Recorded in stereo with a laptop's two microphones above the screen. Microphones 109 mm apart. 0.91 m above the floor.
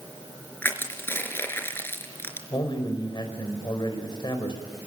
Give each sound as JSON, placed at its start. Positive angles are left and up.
{"t": 0.6, "sound": "crushing", "side_deg": 20, "distance_m": 4.0}
{"t": 2.5, "sound": "a man speaking", "side_deg": 40, "distance_m": 4.0}